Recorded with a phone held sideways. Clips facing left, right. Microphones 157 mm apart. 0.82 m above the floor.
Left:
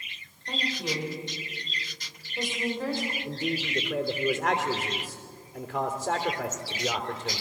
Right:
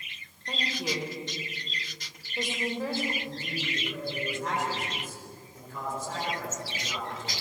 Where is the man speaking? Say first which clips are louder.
Left 5 dB; 70° left (ahead or behind), 3 m.